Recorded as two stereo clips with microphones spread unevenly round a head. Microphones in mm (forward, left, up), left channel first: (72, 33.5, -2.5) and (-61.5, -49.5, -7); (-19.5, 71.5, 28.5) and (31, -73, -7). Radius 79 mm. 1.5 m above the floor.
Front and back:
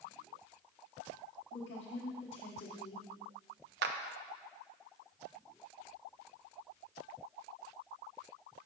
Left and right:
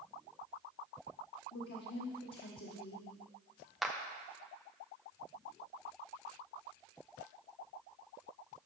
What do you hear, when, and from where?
1.5 s a woman speaking: 85° left, 1.1 m
3.8 s a clap: 165° right, 0.8 m